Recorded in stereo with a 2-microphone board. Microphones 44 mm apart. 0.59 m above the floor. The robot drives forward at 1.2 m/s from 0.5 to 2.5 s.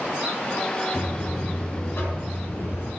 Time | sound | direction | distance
0.9 | a buzzer | 45° left (ahead or behind) | 6 m